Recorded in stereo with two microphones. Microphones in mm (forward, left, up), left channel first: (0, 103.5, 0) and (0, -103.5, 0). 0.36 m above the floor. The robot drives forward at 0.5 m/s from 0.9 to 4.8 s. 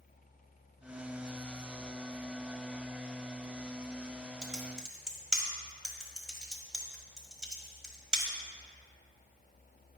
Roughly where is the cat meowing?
No cat meowing in this recording.